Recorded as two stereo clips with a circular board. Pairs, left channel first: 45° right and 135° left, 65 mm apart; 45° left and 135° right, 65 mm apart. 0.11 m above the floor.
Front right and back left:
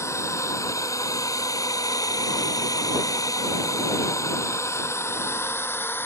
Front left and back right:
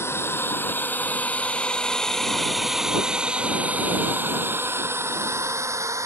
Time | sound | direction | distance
0.0 | a drone | 5° right | ?